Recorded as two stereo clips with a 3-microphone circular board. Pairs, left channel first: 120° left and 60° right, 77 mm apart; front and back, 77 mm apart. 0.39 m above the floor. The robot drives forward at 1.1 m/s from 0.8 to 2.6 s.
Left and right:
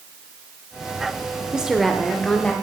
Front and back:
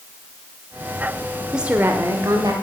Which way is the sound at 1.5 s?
115° right.